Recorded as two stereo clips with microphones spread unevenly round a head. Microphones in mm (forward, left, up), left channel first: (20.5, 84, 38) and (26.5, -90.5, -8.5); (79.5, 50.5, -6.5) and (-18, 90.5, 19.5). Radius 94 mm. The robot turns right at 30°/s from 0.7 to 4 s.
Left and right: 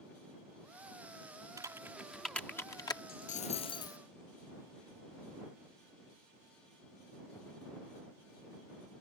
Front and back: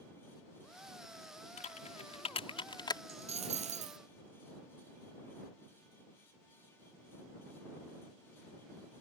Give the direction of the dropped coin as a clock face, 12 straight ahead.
7 o'clock.